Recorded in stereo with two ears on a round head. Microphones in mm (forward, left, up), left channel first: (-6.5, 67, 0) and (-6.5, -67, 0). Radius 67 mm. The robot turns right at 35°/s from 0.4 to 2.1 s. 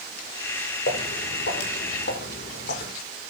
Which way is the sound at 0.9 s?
65° left (ahead or behind).